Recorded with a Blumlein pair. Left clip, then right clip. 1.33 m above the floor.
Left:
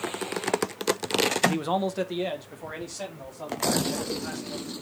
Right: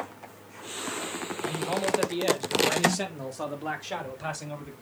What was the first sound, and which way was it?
A man speaking, 30° left.